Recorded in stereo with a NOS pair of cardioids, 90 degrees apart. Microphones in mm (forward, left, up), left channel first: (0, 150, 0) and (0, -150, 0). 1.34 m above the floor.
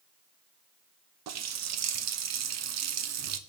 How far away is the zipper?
I don't hear a zipper.